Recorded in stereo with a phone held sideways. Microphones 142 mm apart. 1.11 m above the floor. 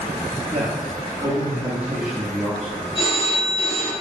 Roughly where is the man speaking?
Right.